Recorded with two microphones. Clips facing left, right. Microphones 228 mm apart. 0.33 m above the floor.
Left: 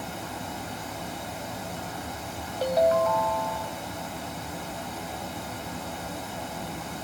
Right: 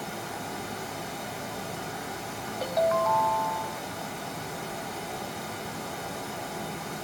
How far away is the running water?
About 1.4 m.